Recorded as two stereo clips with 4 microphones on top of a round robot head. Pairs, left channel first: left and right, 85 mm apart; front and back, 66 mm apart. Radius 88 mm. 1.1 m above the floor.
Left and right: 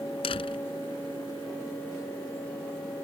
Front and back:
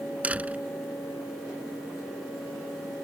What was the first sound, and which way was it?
A door slam, 110° left.